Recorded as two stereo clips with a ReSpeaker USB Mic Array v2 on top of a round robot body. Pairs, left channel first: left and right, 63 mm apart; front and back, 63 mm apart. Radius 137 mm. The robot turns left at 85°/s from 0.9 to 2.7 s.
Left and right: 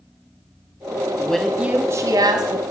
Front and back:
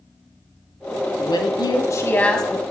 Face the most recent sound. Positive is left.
turn(degrees=-110)